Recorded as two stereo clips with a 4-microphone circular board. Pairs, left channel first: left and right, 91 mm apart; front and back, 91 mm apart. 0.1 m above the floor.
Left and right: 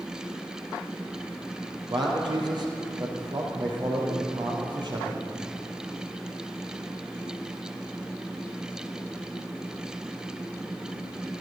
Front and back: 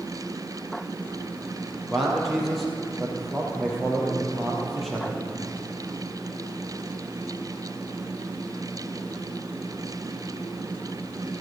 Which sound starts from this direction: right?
A man speaking, at 1.9 s.